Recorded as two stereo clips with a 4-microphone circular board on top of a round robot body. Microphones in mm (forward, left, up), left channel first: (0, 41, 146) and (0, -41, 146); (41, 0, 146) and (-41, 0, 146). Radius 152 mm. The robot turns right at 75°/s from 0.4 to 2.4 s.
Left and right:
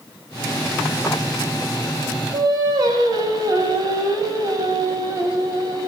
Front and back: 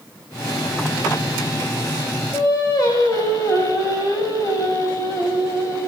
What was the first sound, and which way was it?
Singing, 50° right.